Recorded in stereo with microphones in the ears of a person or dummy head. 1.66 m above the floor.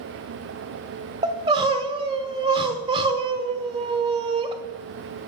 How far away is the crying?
About 0.6 m.